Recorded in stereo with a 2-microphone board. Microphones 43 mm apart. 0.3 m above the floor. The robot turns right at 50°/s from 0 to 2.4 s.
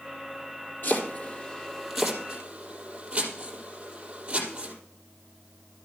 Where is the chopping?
55° left (ahead or behind), 4 m; by 4.7 s 25° right (ahead or behind), 4 m.